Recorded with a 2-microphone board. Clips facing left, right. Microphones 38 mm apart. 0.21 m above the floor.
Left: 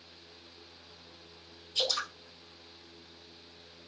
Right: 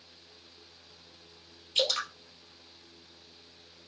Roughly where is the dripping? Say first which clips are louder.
Right 3 dB; right.